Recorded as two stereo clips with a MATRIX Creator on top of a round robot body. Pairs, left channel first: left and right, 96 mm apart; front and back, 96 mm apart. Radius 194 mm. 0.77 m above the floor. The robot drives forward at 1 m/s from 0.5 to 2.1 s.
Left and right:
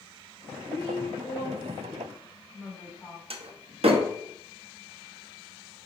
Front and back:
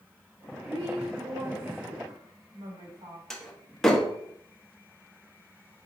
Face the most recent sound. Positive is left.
turn(degrees=-85)